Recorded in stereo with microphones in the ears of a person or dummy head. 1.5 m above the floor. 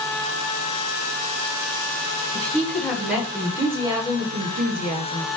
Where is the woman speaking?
10° left (ahead or behind), 1.9 m; by 5.3 s 65° right (ahead or behind), 1.3 m.